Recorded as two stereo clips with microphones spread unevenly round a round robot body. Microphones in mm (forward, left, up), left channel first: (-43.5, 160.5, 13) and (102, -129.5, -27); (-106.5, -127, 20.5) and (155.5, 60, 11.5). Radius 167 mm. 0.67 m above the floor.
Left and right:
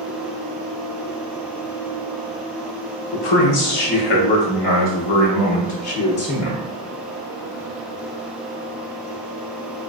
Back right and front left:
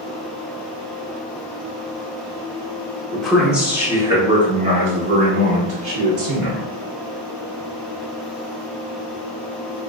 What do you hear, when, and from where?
3.1 s a man speaking: 130° left, 2.5 m; by 6.7 s 65° left, 2 m